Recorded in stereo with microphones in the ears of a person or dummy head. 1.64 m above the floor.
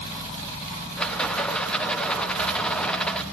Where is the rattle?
15° left (ahead or behind), 1.0 m.